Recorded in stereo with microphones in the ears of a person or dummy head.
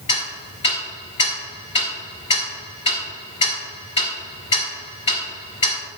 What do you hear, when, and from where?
0.1 s ticking: 35° left (ahead or behind), 4 m